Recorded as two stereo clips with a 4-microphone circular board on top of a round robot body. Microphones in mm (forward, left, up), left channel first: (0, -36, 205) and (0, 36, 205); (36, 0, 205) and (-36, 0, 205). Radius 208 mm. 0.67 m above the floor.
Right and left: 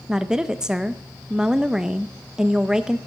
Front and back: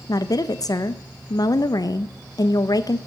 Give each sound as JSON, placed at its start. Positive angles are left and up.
{"t": 0.1, "sound": "a woman speaking", "azimuth_deg": 10, "distance_m": 0.6}